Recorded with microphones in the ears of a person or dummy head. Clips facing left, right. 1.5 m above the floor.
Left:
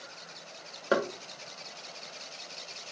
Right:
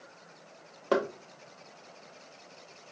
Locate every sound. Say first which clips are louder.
0.9 s knocking: even; 5° left (ahead or behind), 0.9 m